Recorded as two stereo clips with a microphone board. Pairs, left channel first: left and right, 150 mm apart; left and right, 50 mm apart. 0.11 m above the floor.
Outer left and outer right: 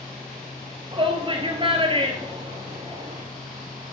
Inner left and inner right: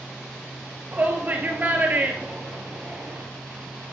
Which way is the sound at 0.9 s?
35° right (ahead or behind).